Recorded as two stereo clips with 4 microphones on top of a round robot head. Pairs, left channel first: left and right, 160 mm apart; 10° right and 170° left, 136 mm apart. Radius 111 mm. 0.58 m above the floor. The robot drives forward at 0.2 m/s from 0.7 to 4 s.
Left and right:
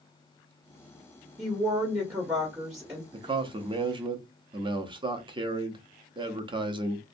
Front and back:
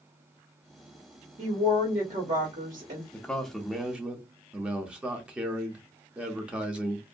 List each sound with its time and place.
1.4 s a woman speaking: 160° right, 1.3 m; by 3.0 s 165° right, 1.5 m
3.1 s a man speaking: 85° right, 0.6 m; by 7.0 s 115° right, 0.6 m